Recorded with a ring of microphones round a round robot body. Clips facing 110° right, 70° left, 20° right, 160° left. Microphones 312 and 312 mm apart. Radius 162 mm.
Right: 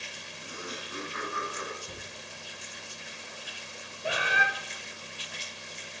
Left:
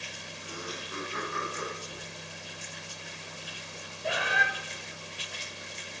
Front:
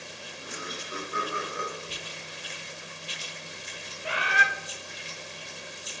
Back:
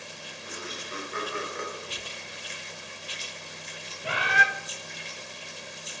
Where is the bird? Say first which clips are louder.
Even, back 2 dB; 165° left, 1.0 m.